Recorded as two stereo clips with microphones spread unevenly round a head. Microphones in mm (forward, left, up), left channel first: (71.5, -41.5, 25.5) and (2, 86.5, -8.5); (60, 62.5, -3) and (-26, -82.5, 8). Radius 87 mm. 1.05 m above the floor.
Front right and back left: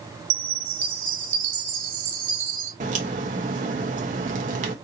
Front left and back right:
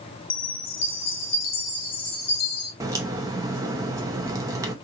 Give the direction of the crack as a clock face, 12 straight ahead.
6 o'clock.